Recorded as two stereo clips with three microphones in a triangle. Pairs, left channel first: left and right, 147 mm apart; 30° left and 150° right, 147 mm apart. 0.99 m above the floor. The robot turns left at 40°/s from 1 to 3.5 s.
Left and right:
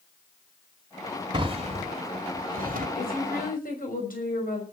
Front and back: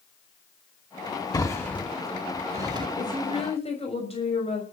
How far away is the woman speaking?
About 6 m.